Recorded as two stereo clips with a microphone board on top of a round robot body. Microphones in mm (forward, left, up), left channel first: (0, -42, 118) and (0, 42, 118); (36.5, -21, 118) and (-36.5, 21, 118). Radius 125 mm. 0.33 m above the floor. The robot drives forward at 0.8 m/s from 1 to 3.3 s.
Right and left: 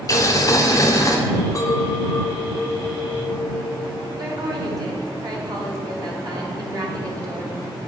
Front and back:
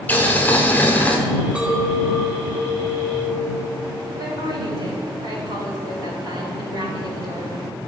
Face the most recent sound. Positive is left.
turn(degrees=125)